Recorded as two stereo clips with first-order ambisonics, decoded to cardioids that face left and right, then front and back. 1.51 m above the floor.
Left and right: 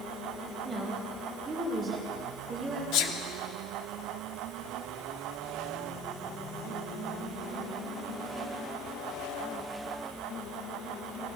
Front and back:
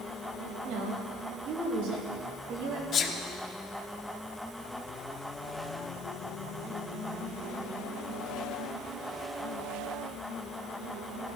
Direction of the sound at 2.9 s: 60° left.